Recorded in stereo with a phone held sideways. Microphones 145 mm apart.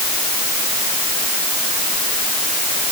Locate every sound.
Only background noise.